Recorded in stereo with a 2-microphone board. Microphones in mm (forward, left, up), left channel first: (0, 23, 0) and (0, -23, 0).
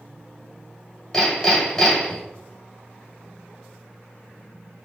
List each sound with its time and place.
1.1 s hammering: 20° left (ahead or behind), 1.6 m